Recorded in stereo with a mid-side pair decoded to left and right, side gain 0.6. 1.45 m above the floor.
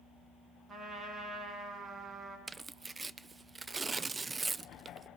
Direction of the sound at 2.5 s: 20° right.